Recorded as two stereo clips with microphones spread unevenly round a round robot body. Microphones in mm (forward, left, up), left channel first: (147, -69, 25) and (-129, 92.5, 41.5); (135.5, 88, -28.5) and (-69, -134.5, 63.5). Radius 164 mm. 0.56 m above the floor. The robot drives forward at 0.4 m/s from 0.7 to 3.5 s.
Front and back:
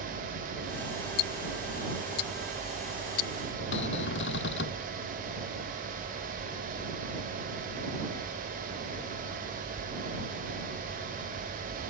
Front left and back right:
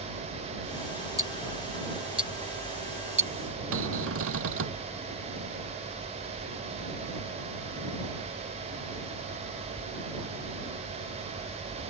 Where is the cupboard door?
85° right.